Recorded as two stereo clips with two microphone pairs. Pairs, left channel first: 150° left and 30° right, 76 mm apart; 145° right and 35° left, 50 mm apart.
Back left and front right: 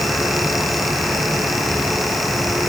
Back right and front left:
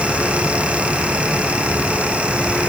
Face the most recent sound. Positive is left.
No sound to turn to.